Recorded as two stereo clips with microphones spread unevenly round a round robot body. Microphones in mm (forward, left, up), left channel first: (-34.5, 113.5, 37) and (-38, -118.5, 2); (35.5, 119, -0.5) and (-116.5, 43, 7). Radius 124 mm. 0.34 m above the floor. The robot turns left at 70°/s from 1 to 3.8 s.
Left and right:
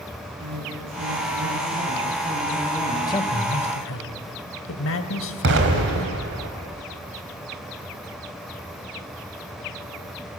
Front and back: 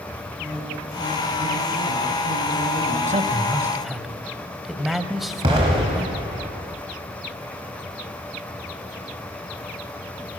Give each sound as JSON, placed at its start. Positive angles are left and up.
{"t": 0.4, "sound": "a woman speaking", "azimuth_deg": -70, "distance_m": 6.0}
{"t": 3.1, "sound": "a man speaking", "azimuth_deg": 165, "distance_m": 1.4}
{"t": 5.4, "sound": "an explosion", "azimuth_deg": -90, "distance_m": 2.5}